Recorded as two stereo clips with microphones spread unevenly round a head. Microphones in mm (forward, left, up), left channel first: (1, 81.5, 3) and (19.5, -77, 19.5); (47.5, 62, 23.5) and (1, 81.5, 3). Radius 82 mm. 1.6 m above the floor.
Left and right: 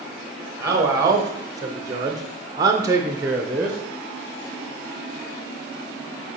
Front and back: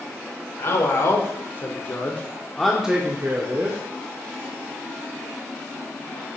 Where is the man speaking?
15° right, 1.3 m; by 3.8 s 160° right, 0.7 m.